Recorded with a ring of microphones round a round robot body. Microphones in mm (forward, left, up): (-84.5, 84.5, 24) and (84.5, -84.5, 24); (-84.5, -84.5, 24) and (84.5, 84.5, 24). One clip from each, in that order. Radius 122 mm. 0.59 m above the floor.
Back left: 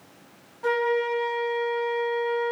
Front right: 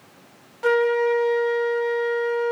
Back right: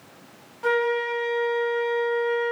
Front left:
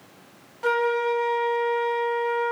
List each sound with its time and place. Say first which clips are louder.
0.6 s a flute: front right 5 dB, even; 25° right, 1.3 m